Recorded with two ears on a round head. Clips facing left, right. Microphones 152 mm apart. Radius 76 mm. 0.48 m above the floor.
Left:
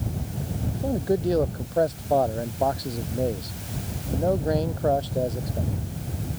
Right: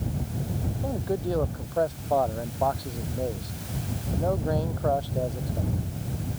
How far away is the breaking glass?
No breaking glass in this recording.